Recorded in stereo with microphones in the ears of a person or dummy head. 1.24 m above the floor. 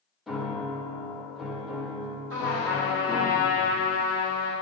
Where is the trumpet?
60° right (ahead or behind), 2 m.